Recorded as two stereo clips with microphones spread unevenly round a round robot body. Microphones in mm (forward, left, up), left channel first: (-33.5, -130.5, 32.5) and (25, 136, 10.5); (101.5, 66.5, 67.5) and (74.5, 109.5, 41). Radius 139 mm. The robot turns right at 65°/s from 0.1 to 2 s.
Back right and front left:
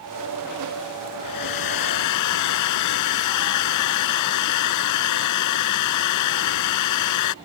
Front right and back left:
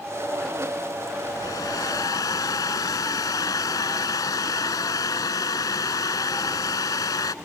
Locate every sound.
1.2 s a hair dryer: 130° right; by 7.3 s 80° right